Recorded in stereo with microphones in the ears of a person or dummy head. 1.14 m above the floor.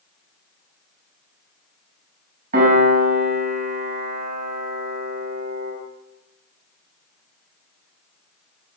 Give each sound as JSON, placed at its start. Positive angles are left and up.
{"t": 2.5, "sound": "a piano", "side_deg": -50, "distance_m": 5.5}